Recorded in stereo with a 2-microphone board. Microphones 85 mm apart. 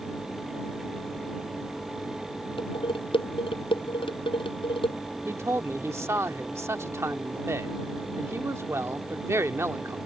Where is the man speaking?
35° right (ahead or behind).